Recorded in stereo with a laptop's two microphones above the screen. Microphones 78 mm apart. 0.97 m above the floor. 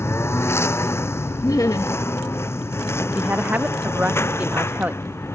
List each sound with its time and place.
0.0 s a lawn mower: 35° left (ahead or behind); by 5.3 s 30° left (ahead or behind)
1.4 s laughter: 50° left (ahead or behind)
3.1 s a woman speaking: 20° right (ahead or behind)